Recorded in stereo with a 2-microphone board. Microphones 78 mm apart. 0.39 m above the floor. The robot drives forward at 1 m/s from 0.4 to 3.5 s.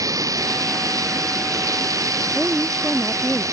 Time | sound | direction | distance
0.0 | running water | 45° right (ahead or behind) | ?
2.4 | a woman speaking | centre (ahead or behind) | ?